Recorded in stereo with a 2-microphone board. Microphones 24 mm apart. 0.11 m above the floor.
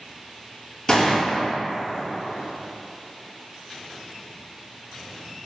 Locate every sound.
0.9 s a gunshot: 40° left (ahead or behind), 1.3 m